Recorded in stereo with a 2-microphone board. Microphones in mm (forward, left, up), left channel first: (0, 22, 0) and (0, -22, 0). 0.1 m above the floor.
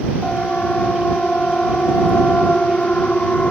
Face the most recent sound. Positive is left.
turn(degrees=25)  # may be behind; listen again after turning